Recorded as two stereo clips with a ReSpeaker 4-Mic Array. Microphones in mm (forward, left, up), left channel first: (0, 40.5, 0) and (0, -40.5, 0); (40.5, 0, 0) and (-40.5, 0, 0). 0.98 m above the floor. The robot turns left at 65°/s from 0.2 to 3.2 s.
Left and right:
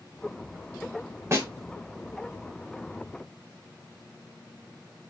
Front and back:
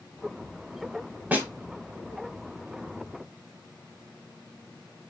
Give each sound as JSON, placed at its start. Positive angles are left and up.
{"t": 1.3, "sound": "a snare drum", "azimuth_deg": -125, "distance_m": 0.8}